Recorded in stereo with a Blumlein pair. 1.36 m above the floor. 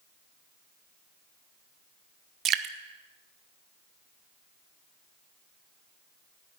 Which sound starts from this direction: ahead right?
Dripping, at 2.5 s.